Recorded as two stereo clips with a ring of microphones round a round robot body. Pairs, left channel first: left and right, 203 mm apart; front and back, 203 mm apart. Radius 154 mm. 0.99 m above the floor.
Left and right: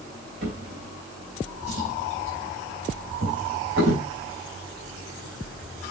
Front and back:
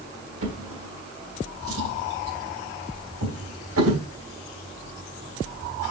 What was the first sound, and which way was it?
A drawer, 145° right.